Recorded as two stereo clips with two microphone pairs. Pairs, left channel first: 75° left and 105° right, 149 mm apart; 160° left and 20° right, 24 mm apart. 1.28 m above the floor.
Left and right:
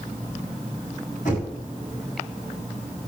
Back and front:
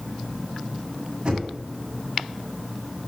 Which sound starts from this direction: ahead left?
Knocking, at 1.2 s.